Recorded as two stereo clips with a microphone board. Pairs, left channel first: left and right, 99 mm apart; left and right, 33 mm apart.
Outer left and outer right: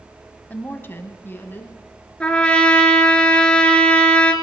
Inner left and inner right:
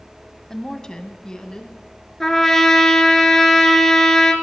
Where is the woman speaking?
20° left (ahead or behind), 1.0 m.